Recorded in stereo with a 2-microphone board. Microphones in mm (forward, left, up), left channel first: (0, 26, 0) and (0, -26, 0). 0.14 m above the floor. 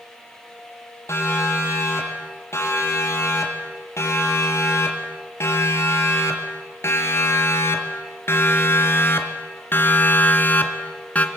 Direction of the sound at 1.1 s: 60° left (ahead or behind).